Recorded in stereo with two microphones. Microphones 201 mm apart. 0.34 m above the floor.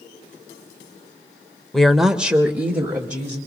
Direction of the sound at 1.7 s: Centre (ahead or behind).